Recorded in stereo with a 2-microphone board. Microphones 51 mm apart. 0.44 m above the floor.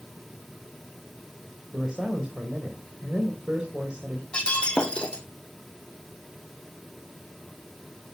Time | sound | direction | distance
1.7 | a man speaking | 20° right (ahead or behind) | 2.5 m
4.3 | breaking glass | 20° left (ahead or behind) | 2 m